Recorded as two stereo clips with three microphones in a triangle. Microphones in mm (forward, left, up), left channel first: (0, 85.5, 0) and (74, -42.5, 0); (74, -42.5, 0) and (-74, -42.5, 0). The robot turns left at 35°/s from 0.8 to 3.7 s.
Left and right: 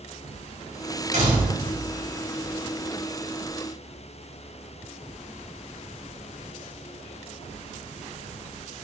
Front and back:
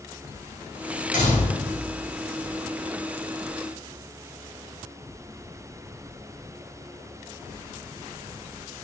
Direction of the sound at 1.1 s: 25° right.